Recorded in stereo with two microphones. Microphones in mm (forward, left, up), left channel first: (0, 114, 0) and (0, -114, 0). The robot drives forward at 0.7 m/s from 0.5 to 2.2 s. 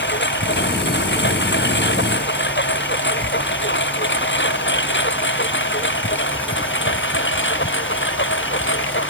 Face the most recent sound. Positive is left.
turn(degrees=60)  # may be behind; listen again after turning